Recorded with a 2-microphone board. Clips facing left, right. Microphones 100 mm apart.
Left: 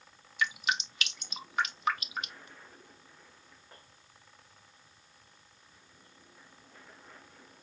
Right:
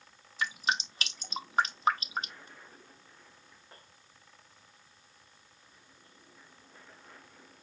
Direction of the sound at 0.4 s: 35° right (ahead or behind).